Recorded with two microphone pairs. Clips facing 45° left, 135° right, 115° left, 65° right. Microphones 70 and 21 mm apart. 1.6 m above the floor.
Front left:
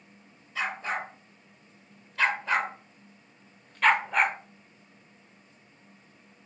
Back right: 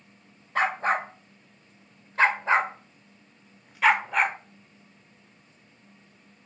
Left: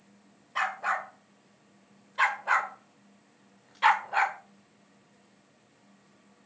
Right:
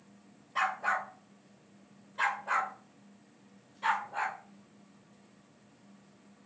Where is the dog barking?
170° right, 3 m; by 4.4 s 135° left, 2 m.